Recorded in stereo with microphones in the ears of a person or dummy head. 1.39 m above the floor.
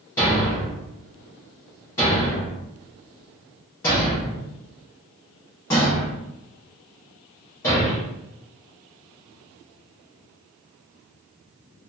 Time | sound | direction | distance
0.2 | a thud | 15° left (ahead or behind) | 0.7 m